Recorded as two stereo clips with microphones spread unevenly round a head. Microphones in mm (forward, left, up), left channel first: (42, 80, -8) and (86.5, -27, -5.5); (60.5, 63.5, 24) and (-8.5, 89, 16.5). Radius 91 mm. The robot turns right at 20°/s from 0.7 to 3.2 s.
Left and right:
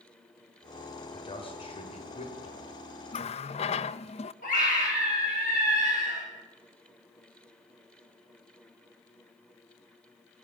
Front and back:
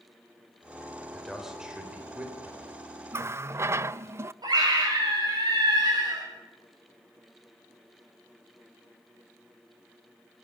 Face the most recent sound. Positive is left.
turn(degrees=145)